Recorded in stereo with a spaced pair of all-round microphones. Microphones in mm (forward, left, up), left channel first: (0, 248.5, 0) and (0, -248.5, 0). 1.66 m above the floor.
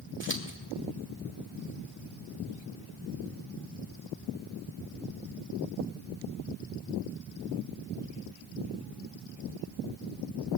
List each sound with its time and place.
0.2 s scissors: 25° right (ahead or behind), 1.7 m